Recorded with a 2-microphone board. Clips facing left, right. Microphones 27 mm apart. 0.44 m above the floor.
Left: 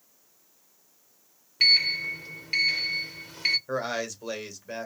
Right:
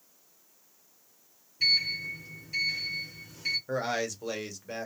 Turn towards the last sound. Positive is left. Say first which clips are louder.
# left 1 dB
turn(degrees=0)  # may be behind; listen again after turning